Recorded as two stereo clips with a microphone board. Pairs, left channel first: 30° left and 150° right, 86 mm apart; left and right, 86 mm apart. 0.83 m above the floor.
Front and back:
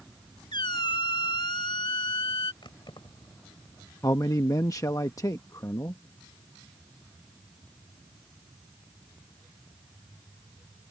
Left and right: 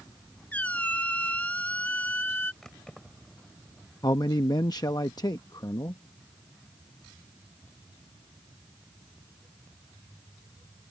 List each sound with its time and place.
0.5 s a squeak: 20° left
2.6 s keys jangling: 5° left
4.0 s a man speaking: 65° left